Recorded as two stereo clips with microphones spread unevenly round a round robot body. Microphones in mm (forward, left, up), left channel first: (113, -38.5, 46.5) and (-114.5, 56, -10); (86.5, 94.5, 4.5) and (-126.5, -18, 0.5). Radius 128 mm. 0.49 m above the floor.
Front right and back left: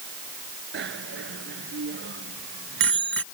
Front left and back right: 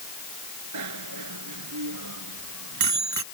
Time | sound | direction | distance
0.7 | a bicycle bell | 155° right | ?